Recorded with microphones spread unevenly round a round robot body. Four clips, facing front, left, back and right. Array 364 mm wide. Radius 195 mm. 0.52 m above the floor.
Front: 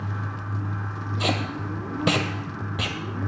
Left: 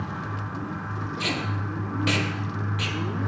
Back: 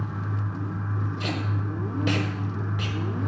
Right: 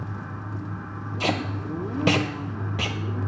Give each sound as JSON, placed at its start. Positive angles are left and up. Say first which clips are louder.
{"t": 1.2, "sound": "tape being pulled", "louder": "right 5 dB, front 6 dB", "azimuth_deg": -40, "distance_m": 1.1}